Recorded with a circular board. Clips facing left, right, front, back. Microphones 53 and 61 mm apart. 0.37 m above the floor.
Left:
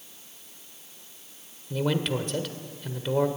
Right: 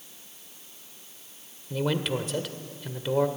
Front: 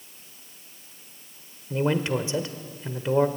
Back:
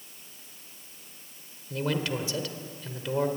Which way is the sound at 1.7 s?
10° right.